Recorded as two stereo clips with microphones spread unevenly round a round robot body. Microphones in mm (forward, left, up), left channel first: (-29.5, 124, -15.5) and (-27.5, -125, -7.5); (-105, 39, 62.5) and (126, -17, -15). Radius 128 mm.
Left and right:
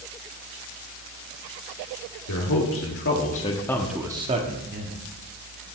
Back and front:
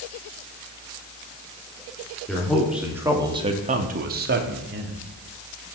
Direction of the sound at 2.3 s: 70° left.